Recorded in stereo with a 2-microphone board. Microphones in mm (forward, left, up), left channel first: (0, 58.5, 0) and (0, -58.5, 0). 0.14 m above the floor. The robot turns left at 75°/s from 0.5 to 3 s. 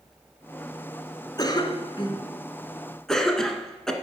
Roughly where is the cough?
Left.